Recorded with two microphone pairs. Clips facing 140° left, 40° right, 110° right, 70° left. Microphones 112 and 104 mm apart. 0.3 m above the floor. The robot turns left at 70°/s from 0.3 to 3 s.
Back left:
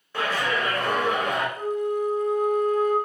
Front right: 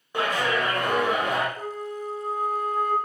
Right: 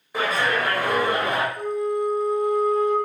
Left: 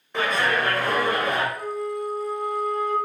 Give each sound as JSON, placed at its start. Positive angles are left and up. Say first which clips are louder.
{"t": 0.1, "sound": "a clap", "louder": "front right 1 dB, even", "azimuth_deg": -40, "distance_m": 0.8}
{"t": 1.6, "sound": "a flute", "louder": "back left 8 dB, right 4 dB", "azimuth_deg": -40, "distance_m": 1.4}